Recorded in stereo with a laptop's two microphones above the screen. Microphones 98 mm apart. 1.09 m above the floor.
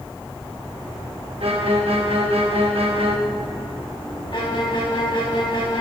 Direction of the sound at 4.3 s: 55° left (ahead or behind).